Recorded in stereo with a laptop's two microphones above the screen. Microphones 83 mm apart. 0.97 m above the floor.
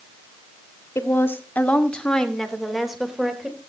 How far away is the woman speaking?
About 2 m.